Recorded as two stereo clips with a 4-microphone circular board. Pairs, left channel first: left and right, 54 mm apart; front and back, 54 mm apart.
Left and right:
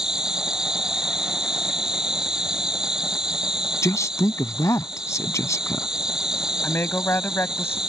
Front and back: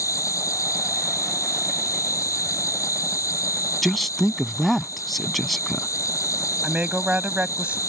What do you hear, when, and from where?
0.0 s an insect: 15° right
3.8 s a man speaking: 90° left
6.6 s a woman speaking: 115° left